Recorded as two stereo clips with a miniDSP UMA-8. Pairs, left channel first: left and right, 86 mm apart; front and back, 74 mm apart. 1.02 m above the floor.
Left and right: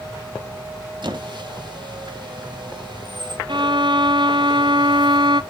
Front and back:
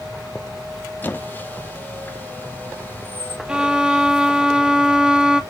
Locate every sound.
1.0 s a squeak: 65° right, 1.0 m
3.5 s a violin: 105° right, 0.6 m